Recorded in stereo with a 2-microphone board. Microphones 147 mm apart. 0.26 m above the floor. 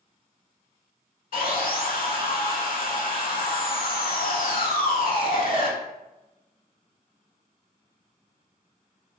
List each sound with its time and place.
1.3 s sawing: 75° left (ahead or behind), 0.5 m